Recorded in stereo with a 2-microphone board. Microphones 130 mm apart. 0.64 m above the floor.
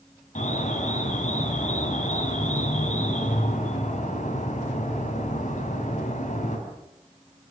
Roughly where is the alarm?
Left.